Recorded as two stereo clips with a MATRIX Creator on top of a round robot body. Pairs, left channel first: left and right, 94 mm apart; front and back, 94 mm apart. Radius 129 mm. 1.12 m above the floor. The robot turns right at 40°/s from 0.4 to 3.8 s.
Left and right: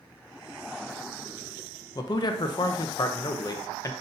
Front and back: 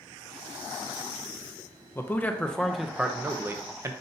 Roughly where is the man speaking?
Ahead left.